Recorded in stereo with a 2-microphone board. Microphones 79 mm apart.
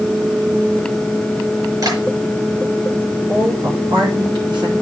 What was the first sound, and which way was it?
Tapping, 55° right (ahead or behind).